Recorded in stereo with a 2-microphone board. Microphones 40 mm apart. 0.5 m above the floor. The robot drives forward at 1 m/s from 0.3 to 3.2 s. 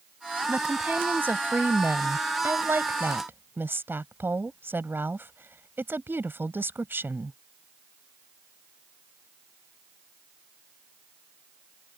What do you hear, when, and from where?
0.5 s a woman speaking: 45° right (ahead or behind); by 7.4 s 65° right (ahead or behind)